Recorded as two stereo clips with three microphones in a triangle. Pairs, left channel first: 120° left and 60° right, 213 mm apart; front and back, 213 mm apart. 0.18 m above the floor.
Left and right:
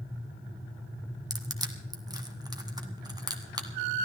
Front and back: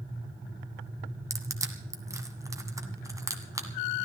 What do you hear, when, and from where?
1.3 s crushing: 115° right, 1.5 m